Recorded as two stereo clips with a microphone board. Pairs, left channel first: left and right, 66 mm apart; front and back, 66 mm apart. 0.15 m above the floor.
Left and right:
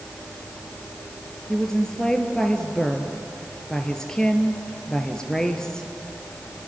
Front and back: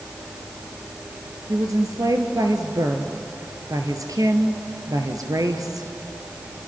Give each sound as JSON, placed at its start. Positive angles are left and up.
{"t": 1.5, "sound": "a woman speaking", "azimuth_deg": 170, "distance_m": 3.0}